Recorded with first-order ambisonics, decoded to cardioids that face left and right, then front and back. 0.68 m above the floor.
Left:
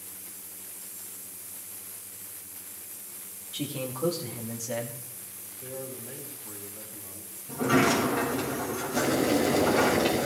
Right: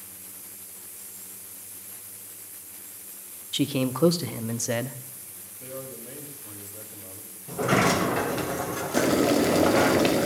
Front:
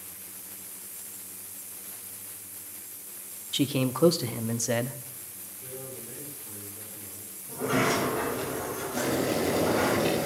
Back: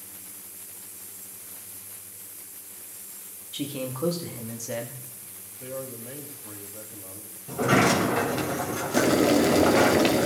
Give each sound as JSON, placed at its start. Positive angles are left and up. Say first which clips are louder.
{"t": 3.5, "sound": "a man speaking", "louder": "right 8 dB, front 5 dB", "azimuth_deg": -55, "distance_m": 0.8}
{"t": 5.6, "sound": "a man speaking", "louder": "right 1 dB, back 6 dB", "azimuth_deg": -155, "distance_m": 4.0}
{"t": 7.5, "sound": "a sliding door", "louder": "right 1 dB, back 5 dB", "azimuth_deg": -140, "distance_m": 2.5}
{"t": 8.9, "sound": "boiling", "louder": "right 4 dB, back 7 dB", "azimuth_deg": -145, "distance_m": 1.6}